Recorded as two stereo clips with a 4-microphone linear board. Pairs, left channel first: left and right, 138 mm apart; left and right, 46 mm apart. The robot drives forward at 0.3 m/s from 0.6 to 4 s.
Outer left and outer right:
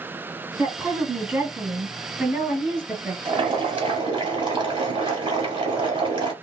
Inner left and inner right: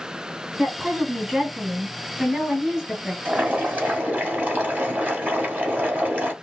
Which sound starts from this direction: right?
Boiling, at 3.2 s.